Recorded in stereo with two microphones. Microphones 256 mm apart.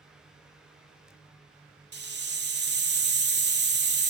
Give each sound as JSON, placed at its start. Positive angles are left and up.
{"t": 1.9, "sound": "a hiss", "side_deg": -45, "distance_m": 0.5}